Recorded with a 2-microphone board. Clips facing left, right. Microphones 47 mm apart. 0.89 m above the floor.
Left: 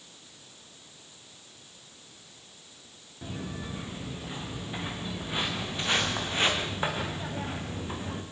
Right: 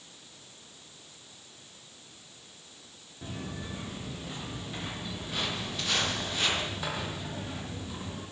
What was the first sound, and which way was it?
Footsteps, 10° left (ahead or behind).